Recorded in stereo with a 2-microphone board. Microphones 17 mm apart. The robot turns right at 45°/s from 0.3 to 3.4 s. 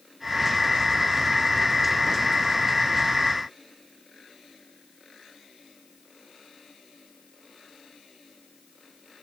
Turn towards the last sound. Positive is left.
No sound to turn to.